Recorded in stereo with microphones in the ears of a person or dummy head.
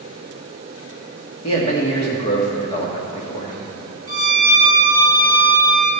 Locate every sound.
1.4 s a man speaking: 35° left (ahead or behind), 2.5 m
4.1 s a violin: 35° right (ahead or behind), 1.9 m